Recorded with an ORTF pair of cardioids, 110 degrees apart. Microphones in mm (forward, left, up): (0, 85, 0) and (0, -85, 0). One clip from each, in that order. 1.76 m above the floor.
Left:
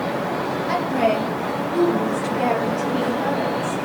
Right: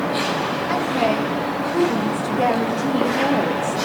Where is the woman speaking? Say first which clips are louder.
Left 1 dB; 5° left, 2 m; by 3.8 s 60° right, 1.1 m.